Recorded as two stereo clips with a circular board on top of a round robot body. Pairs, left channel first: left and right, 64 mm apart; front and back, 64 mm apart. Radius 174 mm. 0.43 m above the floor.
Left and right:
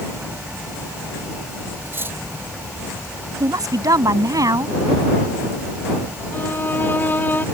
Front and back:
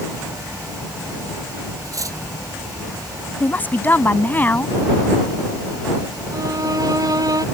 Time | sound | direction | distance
1.9 | cutlery clinking | 145° right | ?
3.4 | a woman speaking | 65° right | ?
6.3 | a violin | 150° left | ?